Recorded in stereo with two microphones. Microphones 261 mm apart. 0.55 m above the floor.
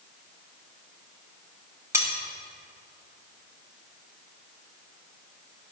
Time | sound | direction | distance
1.9 | cutlery clinking | 10° right (ahead or behind) | 1.8 m